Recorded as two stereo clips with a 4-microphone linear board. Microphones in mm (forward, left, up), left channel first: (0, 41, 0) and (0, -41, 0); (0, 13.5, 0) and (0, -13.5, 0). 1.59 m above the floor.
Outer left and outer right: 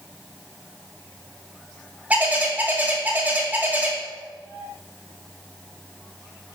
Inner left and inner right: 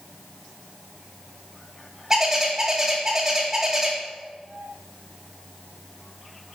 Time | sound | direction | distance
2.1 | a bird | 20° right (ahead or behind) | 1.5 m